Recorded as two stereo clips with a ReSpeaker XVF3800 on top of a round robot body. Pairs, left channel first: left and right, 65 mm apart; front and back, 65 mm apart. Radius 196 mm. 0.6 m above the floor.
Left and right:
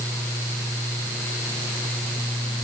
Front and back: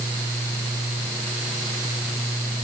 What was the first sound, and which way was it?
Only background noise.